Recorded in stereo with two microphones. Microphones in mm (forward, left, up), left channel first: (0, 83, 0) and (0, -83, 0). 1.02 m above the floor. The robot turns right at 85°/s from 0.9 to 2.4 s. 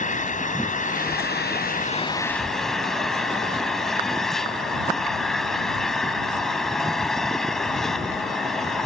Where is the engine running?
50° left; by 8.9 s straight behind.